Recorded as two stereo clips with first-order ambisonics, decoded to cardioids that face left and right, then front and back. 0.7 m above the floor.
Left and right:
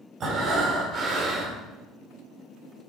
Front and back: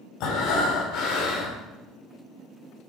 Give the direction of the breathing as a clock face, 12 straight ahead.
1 o'clock.